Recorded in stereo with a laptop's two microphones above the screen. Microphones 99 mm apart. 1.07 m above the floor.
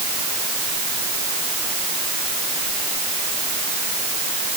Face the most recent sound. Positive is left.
No sound to turn to.